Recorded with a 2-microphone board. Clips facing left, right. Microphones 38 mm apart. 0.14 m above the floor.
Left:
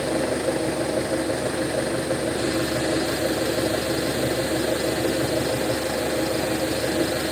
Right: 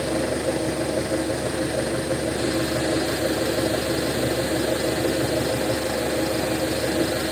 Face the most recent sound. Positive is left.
turn(degrees=25)  # may be behind; listen again after turning